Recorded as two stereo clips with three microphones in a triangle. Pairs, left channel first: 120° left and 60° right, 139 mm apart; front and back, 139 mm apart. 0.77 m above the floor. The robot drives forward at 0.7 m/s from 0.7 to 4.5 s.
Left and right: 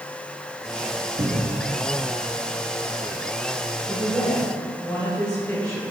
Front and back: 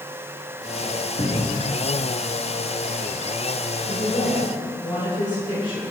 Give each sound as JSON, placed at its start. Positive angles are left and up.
{"t": 1.2, "sound": "a cupboard door", "azimuth_deg": -40, "distance_m": 2.5}
{"t": 3.9, "sound": "a woman speaking", "azimuth_deg": 35, "distance_m": 3.0}